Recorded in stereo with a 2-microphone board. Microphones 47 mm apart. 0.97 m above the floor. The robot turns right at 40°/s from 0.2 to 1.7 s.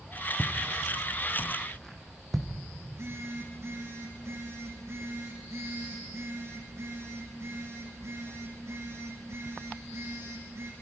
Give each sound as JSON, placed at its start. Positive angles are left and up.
{"t": 0.4, "sound": "footsteps", "side_deg": -10, "distance_m": 1.8}
{"t": 2.9, "sound": "a phone buzzing", "side_deg": -70, "distance_m": 8.0}